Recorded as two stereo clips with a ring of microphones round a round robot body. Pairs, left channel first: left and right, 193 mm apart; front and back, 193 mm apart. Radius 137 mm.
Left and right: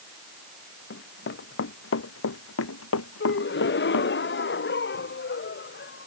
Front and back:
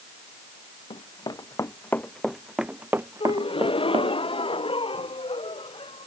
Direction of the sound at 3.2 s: 65° left.